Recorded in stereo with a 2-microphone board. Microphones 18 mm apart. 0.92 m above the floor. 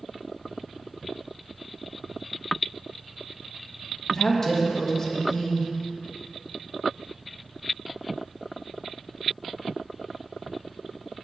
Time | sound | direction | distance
4.1 | a woman speaking | 20° left (ahead or behind) | 1.2 m